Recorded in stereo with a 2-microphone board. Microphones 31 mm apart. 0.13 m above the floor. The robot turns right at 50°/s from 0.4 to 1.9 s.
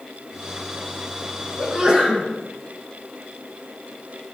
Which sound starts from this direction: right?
A sneeze, at 1.6 s.